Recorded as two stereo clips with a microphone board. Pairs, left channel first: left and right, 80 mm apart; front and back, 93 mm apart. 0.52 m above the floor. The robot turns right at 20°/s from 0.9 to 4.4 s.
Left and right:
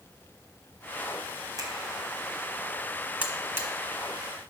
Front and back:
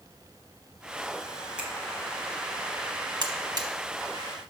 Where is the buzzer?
155° right, 0.9 m; by 3.7 s 145° right, 0.9 m.